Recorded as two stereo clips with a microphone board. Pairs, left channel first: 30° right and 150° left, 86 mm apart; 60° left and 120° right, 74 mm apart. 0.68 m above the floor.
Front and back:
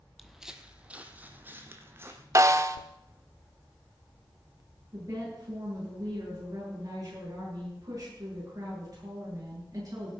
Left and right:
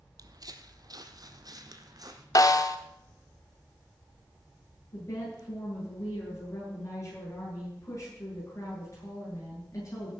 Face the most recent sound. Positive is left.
turn(degrees=105)